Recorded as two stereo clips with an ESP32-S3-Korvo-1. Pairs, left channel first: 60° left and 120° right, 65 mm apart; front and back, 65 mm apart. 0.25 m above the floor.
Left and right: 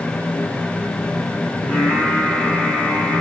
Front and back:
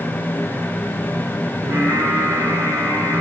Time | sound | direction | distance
1.6 | singing | 140° left | 5 m